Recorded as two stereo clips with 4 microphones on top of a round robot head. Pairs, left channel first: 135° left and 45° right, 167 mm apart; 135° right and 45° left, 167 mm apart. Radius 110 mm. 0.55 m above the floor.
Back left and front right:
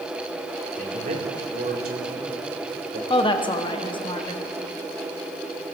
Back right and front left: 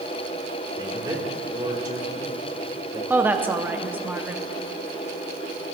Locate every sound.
0.8 s a man speaking: 20° right, 3 m
3.1 s a woman speaking: 110° left, 0.9 m